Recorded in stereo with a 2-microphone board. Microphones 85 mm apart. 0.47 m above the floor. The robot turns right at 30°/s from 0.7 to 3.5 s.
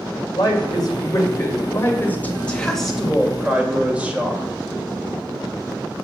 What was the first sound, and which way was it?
A woman speaking, 115° left.